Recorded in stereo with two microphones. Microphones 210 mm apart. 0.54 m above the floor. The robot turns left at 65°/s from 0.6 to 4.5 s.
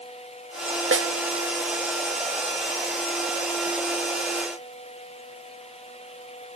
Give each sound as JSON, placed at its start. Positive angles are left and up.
{"t": 0.9, "sound": "a snare drum", "side_deg": -75, "distance_m": 0.7}